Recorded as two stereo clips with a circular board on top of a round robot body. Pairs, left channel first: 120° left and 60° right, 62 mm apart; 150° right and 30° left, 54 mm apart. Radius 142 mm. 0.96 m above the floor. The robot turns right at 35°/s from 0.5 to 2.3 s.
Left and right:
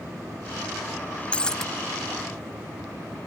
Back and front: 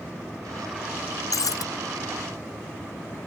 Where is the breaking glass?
165° right; by 1.7 s 155° right.